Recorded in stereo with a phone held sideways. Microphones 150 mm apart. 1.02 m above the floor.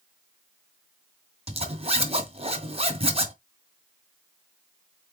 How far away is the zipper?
About 2.5 m.